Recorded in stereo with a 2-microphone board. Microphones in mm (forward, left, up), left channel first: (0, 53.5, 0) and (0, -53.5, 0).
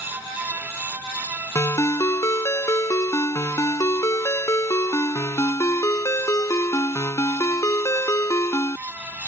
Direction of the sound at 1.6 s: 30° left (ahead or behind).